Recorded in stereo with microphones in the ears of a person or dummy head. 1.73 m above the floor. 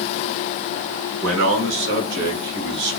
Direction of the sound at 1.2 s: 85° right.